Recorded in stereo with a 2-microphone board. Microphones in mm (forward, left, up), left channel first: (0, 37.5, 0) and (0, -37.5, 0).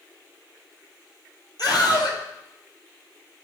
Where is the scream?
65° left (ahead or behind), 2.5 m.